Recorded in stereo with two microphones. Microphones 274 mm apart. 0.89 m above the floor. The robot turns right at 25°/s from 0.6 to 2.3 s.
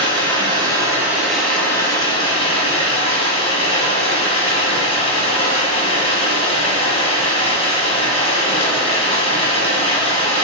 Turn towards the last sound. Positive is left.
turn(degrees=25)